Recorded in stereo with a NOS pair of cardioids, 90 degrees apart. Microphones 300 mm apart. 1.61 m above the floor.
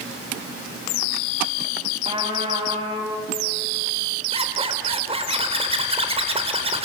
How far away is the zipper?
About 3 m.